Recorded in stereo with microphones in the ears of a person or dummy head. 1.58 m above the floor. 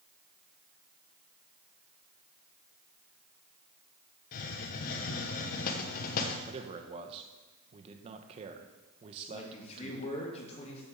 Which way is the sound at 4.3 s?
50° left (ahead or behind).